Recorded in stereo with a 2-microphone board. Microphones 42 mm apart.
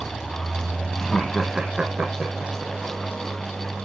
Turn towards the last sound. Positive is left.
turn(degrees=-45)  # may be behind; listen again after turning